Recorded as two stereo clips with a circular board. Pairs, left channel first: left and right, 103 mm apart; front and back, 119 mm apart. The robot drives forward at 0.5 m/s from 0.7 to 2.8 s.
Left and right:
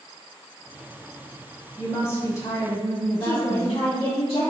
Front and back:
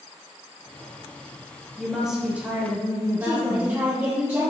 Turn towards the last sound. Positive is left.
turn(degrees=125)